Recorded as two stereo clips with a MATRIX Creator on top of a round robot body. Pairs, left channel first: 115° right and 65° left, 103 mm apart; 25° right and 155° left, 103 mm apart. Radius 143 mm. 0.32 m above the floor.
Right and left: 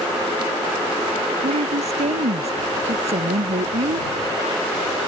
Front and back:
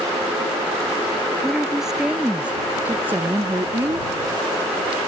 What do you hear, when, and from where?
1.4 s a woman speaking: 65° left; by 4.1 s 90° left